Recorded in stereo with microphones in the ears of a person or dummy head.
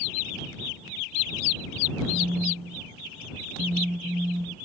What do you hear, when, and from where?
2.1 s a phone buzzing: centre (ahead or behind)